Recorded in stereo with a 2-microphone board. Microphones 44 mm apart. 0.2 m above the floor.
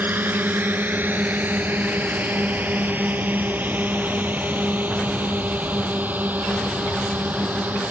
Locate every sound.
0.0 s a drone: 45° right (ahead or behind); by 7.9 s 40° right (ahead or behind)